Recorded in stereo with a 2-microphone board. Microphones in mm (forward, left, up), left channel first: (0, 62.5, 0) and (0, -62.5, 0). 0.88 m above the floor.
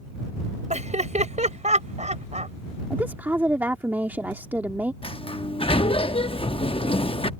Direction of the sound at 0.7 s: 70° right (ahead or behind).